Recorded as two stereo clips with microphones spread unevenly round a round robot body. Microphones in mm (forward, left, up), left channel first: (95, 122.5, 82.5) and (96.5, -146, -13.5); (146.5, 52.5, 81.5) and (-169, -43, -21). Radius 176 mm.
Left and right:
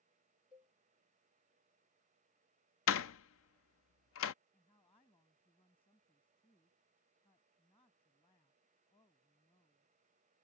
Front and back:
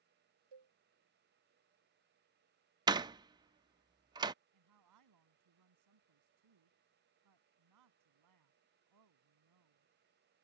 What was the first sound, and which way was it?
A cowbell, 170° right.